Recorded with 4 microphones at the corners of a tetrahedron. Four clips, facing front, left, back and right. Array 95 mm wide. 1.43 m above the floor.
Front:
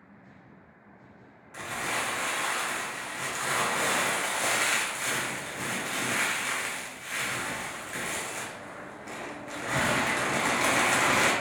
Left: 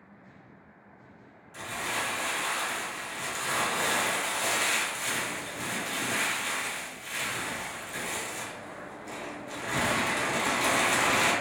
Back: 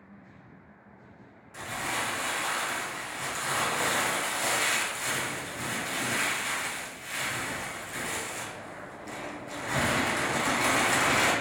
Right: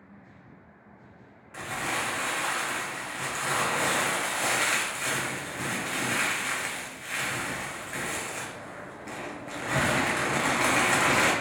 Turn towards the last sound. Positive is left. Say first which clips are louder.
# right 2 dB, front 1 dB
turn(degrees=-55)